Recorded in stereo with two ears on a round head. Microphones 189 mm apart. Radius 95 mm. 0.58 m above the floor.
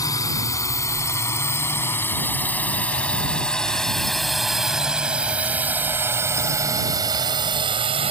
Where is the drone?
15° left (ahead or behind); by 8.1 s 30° right (ahead or behind).